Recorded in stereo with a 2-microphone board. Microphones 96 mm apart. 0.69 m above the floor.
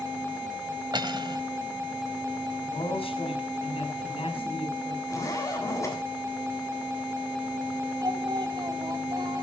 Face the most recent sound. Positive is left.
turn(degrees=-50)  # may be behind; listen again after turning